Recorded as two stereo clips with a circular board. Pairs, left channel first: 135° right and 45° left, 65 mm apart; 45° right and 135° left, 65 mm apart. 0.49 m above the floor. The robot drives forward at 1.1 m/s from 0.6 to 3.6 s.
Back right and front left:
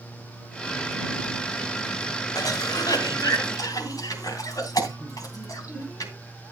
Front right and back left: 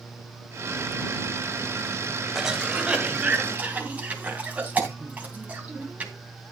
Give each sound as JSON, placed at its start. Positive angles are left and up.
{"t": 2.4, "sound": "a cough", "azimuth_deg": -140, "distance_m": 1.7}